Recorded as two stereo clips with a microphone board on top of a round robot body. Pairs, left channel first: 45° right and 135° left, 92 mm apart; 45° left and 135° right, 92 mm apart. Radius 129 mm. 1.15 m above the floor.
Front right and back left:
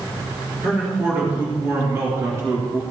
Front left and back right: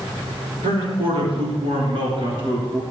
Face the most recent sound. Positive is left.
turn(degrees=-175)